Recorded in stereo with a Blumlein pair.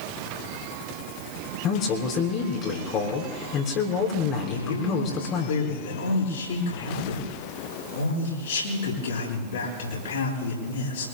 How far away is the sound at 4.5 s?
About 9.5 m.